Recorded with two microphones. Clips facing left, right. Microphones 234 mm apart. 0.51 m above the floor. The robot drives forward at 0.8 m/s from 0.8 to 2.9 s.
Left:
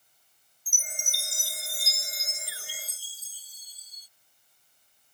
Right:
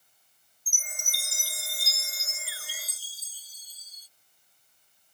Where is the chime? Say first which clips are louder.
Left 3 dB; 35° left (ahead or behind); by 4.1 s 15° left (ahead or behind).